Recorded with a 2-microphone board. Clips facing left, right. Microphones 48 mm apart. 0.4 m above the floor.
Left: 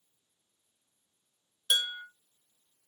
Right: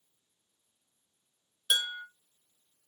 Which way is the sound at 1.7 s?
10° right (ahead or behind).